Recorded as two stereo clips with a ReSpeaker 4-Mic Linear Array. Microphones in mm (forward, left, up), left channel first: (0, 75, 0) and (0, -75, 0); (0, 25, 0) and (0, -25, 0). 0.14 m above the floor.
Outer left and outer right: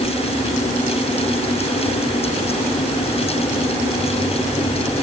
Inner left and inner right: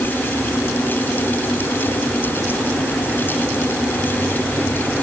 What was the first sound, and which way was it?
Only background noise.